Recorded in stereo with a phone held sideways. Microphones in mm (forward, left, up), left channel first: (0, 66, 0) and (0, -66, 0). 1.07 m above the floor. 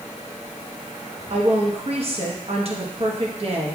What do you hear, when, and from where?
1.3 s a woman speaking: 50° right (ahead or behind), 1.0 m